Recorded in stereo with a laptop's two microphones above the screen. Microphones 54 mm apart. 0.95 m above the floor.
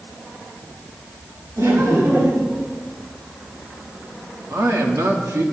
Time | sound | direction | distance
1.6 | laughter | 75° right (ahead or behind) | 2.5 m
4.5 | a man speaking | 70° right (ahead or behind) | 1.5 m